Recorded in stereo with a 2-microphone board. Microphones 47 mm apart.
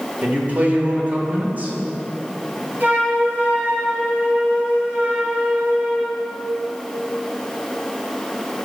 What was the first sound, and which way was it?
A man speaking, 35° right (ahead or behind).